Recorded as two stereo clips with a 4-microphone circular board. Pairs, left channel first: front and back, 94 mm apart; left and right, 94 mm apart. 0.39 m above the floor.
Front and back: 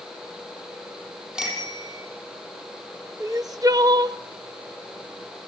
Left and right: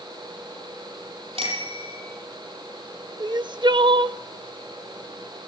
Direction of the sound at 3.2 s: 125° right.